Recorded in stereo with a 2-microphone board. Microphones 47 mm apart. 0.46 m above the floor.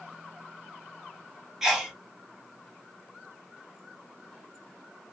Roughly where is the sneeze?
Centre.